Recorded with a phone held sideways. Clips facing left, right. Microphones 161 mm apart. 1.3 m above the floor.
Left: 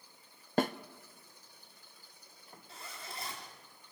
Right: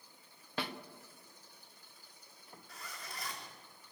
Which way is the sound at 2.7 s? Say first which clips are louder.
Left 2 dB; 25° left (ahead or behind).